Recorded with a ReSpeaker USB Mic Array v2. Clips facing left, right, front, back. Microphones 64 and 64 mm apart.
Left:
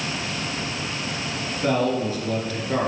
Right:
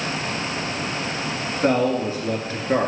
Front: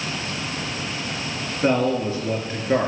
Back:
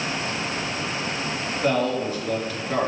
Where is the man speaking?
45° right, 1.9 m.